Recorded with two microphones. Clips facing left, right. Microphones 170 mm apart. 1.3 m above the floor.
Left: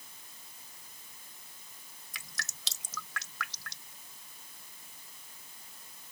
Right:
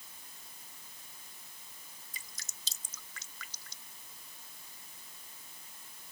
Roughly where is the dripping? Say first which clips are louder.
Left 11 dB; left.